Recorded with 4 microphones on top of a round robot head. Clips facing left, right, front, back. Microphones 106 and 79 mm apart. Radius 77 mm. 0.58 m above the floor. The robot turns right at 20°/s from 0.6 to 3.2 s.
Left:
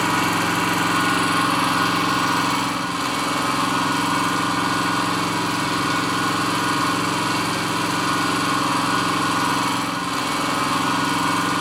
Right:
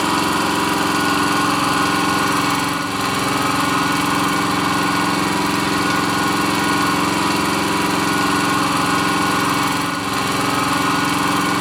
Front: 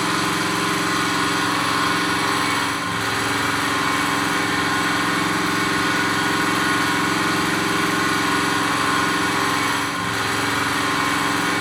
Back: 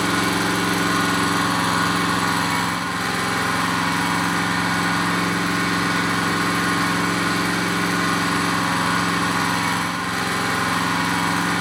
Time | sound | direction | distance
0.0 | an engine running | 150° right | 1.5 m